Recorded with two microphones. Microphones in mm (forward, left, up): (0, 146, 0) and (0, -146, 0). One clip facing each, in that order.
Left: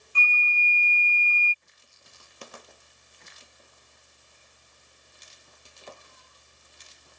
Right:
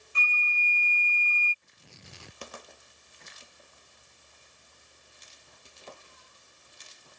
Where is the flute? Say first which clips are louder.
Left 3 dB; 25° right (ahead or behind).